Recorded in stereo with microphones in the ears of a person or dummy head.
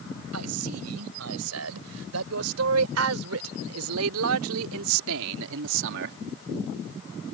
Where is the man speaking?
85° right; by 6.2 s 65° right (ahead or behind).